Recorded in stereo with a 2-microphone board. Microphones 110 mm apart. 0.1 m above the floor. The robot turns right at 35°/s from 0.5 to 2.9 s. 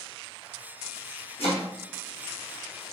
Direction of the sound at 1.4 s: 65° left (ahead or behind).